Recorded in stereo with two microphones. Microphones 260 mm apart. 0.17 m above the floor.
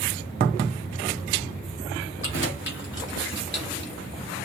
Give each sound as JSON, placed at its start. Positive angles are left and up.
{"t": 2.2, "sound": "keys jangling", "side_deg": 50, "distance_m": 1.7}